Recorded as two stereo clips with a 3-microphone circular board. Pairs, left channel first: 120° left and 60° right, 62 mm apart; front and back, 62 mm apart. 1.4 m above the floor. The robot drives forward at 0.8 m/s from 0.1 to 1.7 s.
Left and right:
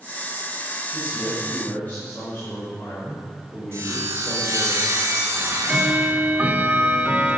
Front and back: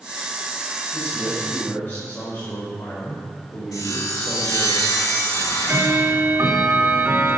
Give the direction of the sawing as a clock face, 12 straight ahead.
12 o'clock.